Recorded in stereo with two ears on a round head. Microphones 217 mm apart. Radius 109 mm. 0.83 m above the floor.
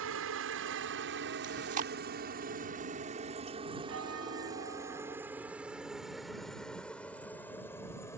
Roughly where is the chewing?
Right.